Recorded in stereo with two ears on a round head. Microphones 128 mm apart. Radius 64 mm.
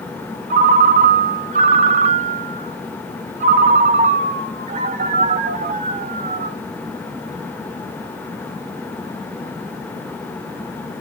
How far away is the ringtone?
About 0.6 m.